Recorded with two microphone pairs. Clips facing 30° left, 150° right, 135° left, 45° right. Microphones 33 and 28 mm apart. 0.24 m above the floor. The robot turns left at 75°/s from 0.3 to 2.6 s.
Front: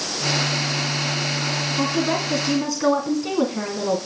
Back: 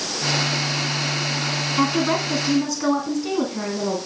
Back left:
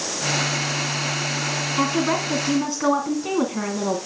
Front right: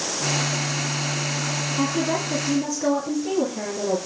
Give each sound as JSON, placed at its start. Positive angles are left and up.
{"t": 1.8, "sound": "a woman speaking", "azimuth_deg": 180, "distance_m": 2.0}